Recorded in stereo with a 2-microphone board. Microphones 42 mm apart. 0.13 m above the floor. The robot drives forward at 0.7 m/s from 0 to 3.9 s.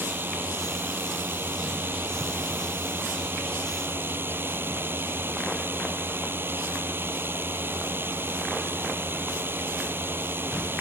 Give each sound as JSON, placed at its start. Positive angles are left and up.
{"t": 0.0, "sound": "a drone", "side_deg": -60}